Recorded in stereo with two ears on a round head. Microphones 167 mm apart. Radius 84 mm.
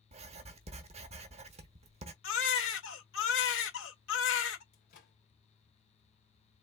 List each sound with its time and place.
0.1 s writing: 35° right (ahead or behind), 0.9 m
2.2 s a baby crying: 70° left (ahead or behind), 1.6 m
4.7 s a microwave: 55° left (ahead or behind), 3 m